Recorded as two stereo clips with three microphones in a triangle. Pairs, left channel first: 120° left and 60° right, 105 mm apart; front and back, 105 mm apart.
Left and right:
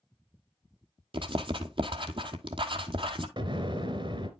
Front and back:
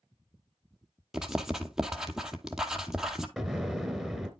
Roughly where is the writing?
Right.